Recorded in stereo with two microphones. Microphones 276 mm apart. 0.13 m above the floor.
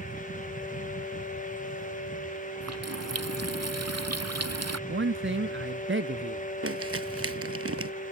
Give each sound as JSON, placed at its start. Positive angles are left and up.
{"t": 2.6, "sound": "a running tap", "side_deg": -65}
{"t": 4.9, "sound": "a man speaking", "side_deg": -45}
{"t": 6.6, "sound": "crumpling", "side_deg": -55}